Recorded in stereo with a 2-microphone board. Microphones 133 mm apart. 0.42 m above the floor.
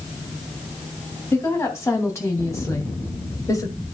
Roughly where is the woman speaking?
Left.